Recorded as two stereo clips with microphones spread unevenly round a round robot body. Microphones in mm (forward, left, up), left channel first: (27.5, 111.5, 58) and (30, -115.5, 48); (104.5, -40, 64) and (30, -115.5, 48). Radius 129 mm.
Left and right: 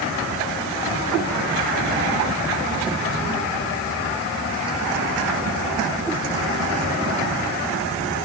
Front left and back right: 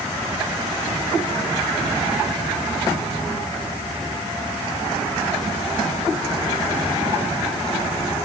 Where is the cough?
I don't hear a cough.